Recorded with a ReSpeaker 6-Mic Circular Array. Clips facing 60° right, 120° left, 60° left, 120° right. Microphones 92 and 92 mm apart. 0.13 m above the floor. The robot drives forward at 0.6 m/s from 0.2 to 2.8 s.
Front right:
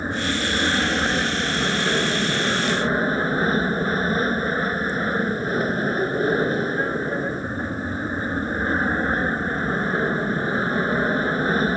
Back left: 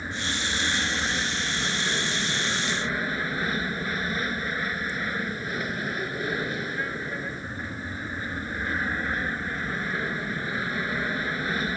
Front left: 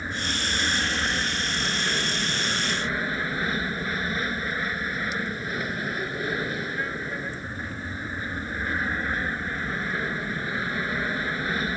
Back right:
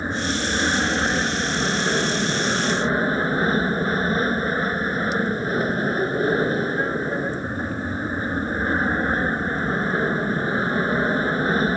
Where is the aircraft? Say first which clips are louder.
Front right 7 dB, back right 6 dB; 85° right; by 11.8 s 90° right.